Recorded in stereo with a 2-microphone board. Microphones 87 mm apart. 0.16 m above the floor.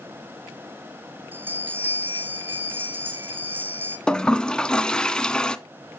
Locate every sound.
1.3 s a bell: 20° right (ahead or behind), 3 m
4.1 s a toilet flushing: 10° left (ahead or behind), 0.5 m